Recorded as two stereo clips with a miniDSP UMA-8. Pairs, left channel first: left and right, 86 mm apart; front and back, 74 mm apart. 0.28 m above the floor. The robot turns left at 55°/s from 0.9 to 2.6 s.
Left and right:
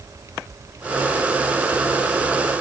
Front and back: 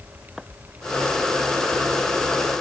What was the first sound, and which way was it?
Only background noise.